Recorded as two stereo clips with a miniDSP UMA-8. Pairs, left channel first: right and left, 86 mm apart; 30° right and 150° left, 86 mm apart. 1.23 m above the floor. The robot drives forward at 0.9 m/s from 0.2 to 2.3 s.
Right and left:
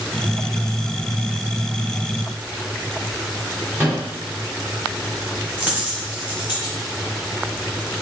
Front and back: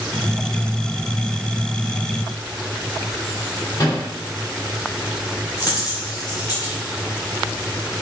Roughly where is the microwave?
Ahead left.